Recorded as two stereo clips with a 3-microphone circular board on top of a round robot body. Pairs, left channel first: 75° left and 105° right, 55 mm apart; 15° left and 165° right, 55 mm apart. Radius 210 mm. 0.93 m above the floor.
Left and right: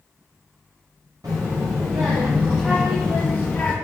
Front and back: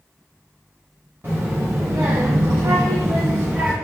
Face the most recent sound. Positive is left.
turn(degrees=135)